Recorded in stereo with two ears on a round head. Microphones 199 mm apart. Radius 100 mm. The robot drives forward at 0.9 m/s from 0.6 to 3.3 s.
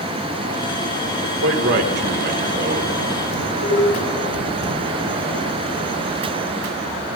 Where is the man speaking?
65° right (ahead or behind), 2.5 m; by 2.9 s 45° right (ahead or behind), 3.5 m.